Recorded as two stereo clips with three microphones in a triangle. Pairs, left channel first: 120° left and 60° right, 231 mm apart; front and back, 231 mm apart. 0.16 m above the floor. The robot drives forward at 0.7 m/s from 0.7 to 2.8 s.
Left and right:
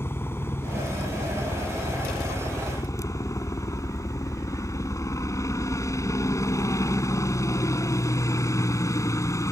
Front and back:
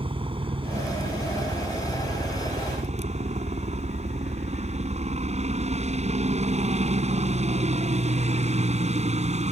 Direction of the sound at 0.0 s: 175° right.